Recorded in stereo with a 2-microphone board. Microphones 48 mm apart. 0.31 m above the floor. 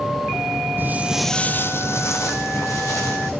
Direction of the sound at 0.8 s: 45° right (ahead or behind).